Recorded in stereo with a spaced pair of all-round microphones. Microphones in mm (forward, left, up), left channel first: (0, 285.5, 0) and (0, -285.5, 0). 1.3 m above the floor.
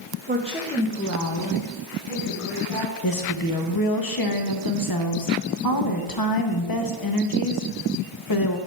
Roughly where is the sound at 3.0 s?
Left.